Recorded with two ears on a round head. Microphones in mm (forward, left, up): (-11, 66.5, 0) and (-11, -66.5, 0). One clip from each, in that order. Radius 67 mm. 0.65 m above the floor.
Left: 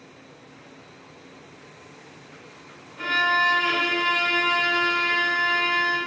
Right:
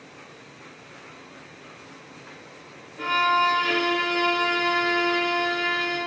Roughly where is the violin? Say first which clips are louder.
Even; centre.